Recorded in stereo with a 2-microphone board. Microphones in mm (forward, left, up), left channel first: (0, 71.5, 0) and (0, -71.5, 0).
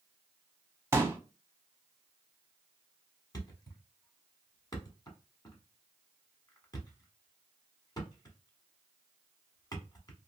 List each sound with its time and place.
0.9 s a pop: 20° right (ahead or behind), 0.7 m
3.3 s a thud: 30° left (ahead or behind), 1.2 m